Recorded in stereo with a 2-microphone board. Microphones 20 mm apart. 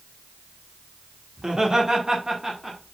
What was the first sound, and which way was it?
Laughter, 30° right (ahead or behind).